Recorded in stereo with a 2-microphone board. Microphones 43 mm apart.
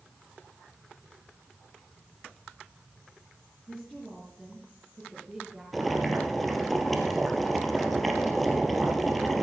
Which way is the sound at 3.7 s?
5° left (ahead or behind).